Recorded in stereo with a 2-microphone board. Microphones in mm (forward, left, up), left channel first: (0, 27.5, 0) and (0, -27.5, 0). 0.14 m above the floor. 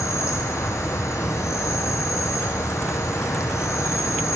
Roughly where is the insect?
Left.